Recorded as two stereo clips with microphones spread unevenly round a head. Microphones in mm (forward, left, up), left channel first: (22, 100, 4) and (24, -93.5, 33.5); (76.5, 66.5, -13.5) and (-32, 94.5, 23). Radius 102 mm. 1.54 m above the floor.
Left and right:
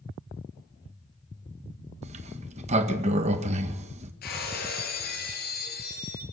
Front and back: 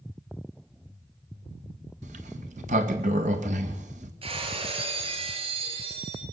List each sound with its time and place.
2.0 s a sliding door: 150° right, 1.9 m
4.2 s breaking glass: 140° left, 8.5 m